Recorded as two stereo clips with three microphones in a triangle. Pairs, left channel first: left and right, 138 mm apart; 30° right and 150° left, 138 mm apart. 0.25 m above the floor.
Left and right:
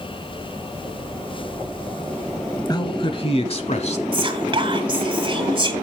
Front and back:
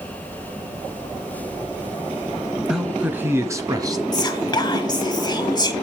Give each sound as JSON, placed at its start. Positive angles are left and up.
{"t": 2.7, "sound": "a man speaking", "azimuth_deg": 65, "distance_m": 1.1}
{"t": 4.1, "sound": "whispering", "azimuth_deg": -70, "distance_m": 1.7}